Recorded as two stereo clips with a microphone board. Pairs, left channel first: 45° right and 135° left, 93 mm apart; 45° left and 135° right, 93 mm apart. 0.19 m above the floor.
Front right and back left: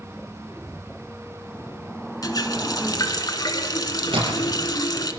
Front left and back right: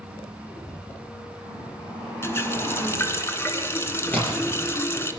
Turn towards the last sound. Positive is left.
turn(degrees=115)